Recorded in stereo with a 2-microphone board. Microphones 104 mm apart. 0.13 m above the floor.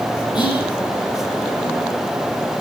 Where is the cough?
No cough in this recording.